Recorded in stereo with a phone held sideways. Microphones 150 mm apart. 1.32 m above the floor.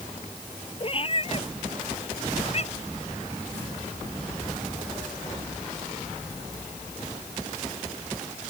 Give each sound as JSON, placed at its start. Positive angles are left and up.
{"t": 0.8, "sound": "a cat meowing", "side_deg": 40}